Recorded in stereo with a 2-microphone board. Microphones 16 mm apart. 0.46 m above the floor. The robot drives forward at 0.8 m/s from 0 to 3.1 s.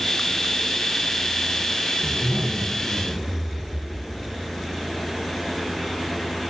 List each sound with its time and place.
2.0 s a zipper: 60° right (ahead or behind), 4.5 m; by 4.5 s 55° right (ahead or behind), 5 m